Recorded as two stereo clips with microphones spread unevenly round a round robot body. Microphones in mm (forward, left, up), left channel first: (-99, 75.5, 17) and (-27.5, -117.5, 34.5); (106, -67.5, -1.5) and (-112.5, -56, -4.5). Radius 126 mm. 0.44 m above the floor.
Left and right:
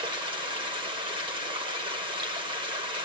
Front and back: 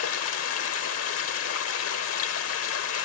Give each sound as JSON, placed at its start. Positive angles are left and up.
{"t": 0.0, "sound": "running water", "azimuth_deg": 0, "distance_m": 1.2}